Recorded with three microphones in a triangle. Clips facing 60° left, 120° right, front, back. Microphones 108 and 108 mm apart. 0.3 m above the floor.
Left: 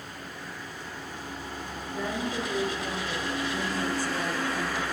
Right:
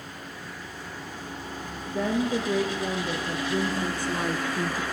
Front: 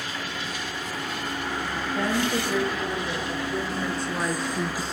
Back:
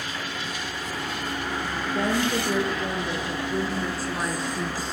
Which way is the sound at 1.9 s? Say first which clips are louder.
Right 6 dB, back 1 dB; 120° right.